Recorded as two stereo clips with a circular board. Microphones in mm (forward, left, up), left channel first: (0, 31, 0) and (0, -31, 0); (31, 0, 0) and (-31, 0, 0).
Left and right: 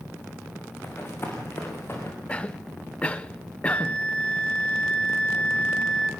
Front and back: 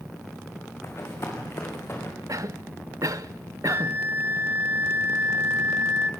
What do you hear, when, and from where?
0.8 s running footsteps: 40° left, 5.5 m; by 2.1 s 50° left, 5.5 m
2.3 s a cough: 160° left, 0.7 m
3.6 s a flute: 150° left, 1.4 m